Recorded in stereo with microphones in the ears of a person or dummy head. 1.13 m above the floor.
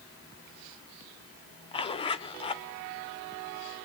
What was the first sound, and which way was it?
A zipper, 30° left (ahead or behind).